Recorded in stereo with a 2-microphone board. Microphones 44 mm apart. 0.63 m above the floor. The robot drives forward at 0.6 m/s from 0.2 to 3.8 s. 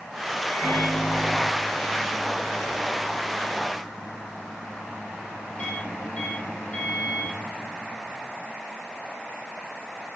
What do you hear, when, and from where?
0.5 s a microwave: 20° right (ahead or behind), 4 m; by 7.9 s 15° right (ahead or behind), 6 m